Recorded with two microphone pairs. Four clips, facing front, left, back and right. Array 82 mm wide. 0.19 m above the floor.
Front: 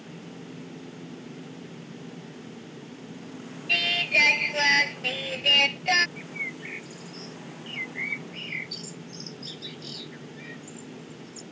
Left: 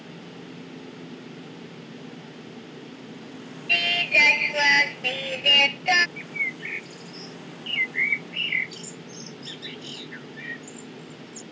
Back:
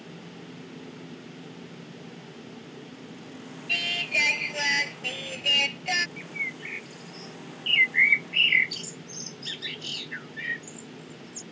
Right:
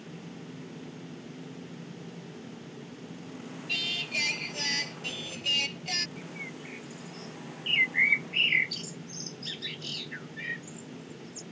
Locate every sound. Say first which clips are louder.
3.7 s singing: left 14 dB, front 4 dB; 75° left
6.2 s a bird: left 8 dB, even; 90° left
7.7 s a bird: even, back 12 dB; straight behind